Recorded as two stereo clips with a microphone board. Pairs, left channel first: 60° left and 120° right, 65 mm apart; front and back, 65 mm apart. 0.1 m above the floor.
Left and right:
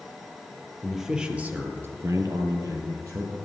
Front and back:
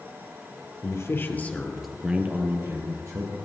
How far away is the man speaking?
About 2 m.